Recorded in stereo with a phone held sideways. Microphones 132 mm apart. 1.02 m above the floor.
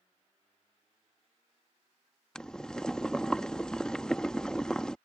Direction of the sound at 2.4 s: 5° left (ahead or behind).